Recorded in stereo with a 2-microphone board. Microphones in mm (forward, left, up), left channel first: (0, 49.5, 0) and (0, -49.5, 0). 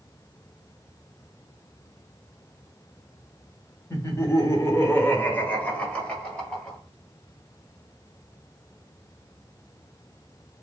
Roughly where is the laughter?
Left.